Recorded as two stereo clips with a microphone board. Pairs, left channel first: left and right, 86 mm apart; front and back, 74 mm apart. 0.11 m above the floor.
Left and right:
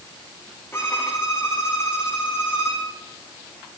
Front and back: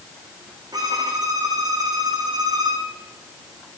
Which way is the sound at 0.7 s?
150° left.